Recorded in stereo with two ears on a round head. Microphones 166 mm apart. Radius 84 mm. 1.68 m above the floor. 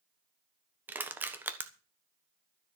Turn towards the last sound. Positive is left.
turn(degrees=-10)  # may be behind; listen again after turning